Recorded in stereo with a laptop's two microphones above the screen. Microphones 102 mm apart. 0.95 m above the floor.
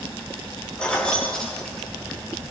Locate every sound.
0.8 s keys jangling: 10° left (ahead or behind), 2.5 m; by 2.3 s centre (ahead or behind), 1.6 m